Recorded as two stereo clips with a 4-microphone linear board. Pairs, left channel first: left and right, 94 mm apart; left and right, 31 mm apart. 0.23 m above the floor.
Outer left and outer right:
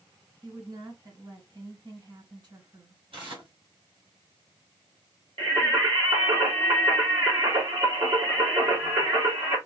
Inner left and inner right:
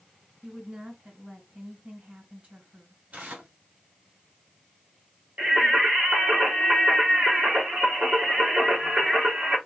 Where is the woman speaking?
50° right (ahead or behind), 2 m.